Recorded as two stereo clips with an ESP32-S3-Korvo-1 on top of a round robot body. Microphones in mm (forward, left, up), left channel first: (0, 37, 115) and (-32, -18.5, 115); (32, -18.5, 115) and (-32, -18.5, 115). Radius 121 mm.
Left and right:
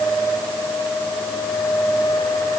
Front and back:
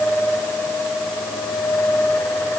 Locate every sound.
Only background noise.